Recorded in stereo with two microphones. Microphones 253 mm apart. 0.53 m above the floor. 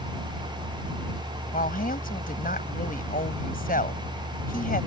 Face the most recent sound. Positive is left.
turn(degrees=35)  # may be behind; listen again after turning